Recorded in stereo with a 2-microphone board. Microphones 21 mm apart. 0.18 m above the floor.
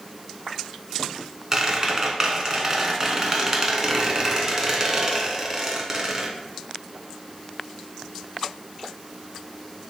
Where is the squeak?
30° right (ahead or behind), 0.6 m.